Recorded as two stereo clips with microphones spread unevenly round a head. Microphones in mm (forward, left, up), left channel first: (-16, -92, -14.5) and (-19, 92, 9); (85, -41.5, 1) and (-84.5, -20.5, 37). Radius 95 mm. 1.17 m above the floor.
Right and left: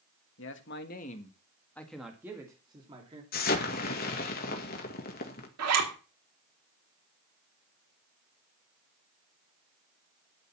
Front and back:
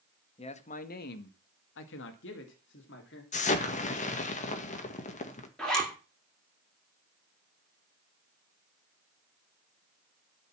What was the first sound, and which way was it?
A man speaking, 60° right.